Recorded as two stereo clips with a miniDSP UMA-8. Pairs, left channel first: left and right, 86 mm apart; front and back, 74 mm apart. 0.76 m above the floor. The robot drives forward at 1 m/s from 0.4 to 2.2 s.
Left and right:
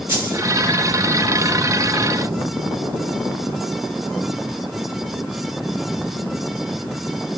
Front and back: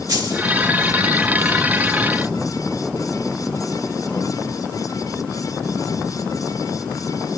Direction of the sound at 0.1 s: 150° right.